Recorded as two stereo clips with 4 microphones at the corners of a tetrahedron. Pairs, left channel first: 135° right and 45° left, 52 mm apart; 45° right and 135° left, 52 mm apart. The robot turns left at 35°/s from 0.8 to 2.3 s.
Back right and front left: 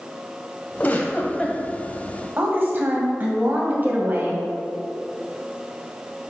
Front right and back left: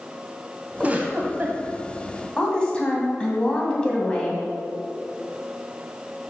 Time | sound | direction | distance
0.8 | a giggle | 175° right | 1.0 m
2.4 | a woman speaking | 20° left | 1.6 m